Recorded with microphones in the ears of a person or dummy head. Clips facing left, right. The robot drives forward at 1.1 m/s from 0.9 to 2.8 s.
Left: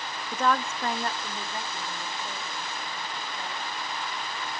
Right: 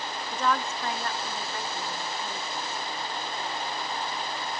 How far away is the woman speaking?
About 0.5 m.